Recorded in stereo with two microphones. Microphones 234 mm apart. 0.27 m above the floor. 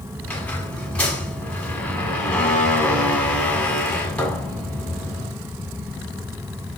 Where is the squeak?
5° left (ahead or behind), 1.8 m.